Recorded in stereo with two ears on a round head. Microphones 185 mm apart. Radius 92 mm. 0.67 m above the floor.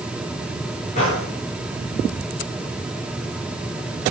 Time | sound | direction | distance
0.9 | a gunshot | 35° left (ahead or behind) | 9.5 m